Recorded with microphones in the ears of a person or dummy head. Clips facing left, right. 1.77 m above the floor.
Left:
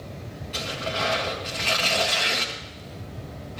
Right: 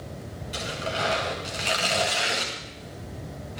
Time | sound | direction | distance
0.5 | tearing paper | 10° right (ahead or behind) | 4.5 m